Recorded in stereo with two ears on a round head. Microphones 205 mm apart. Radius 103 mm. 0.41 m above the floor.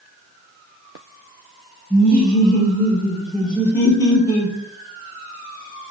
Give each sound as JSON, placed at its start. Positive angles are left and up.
{"t": 1.9, "sound": "laughter", "side_deg": -25, "distance_m": 1.1}